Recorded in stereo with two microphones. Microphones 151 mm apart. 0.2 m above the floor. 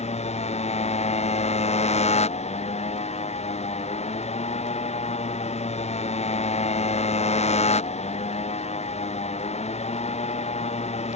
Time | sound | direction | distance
0.0 | a motorcycle | 45° left (ahead or behind) | ?